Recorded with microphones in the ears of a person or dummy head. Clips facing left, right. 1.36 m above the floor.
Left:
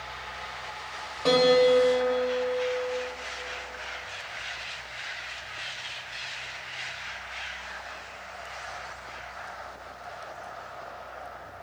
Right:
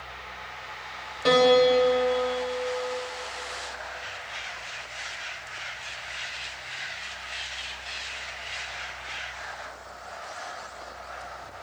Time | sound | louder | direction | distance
1.2 | a piano | right 1 dB | 10° right (ahead or behind) | 0.9 m